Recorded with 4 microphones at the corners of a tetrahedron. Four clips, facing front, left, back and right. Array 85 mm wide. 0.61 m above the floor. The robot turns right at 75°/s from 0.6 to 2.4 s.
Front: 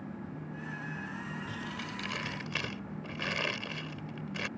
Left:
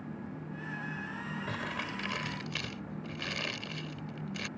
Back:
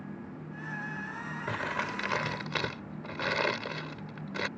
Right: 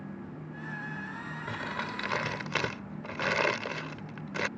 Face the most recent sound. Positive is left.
turn(degrees=-120)